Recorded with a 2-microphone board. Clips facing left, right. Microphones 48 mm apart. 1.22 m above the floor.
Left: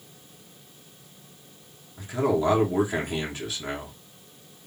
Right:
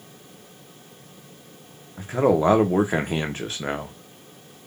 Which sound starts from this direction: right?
A man speaking, at 2.0 s.